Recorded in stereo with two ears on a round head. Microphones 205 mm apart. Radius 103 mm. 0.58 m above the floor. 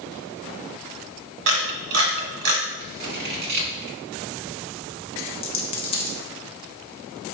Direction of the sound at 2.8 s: 50° right (ahead or behind).